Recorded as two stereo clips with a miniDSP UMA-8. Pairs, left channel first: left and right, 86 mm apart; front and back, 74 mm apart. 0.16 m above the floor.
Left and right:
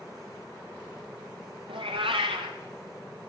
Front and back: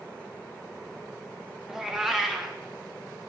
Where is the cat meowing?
95° right, 1.5 m.